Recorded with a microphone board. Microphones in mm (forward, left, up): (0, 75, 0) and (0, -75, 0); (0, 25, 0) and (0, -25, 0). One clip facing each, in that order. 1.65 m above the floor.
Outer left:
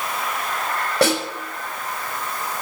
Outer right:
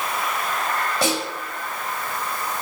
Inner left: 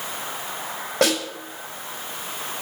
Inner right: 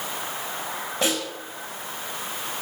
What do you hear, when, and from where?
1.0 s a snare drum: 70° left (ahead or behind), 5 m